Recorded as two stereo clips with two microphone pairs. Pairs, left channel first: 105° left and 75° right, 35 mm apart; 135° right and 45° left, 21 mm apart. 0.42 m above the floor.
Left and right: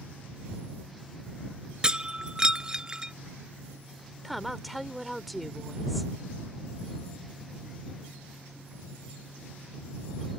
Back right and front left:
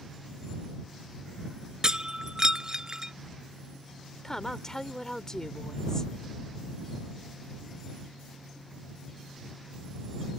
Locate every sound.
1.8 s breaking glass: 5° right
4.2 s a woman speaking: 160° right